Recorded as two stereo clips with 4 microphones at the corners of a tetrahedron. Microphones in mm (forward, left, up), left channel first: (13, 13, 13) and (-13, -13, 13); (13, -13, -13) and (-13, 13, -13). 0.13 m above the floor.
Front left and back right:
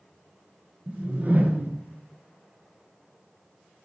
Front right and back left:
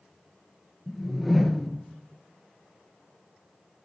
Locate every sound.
0.9 s a whoosh: 135° right, 1.1 m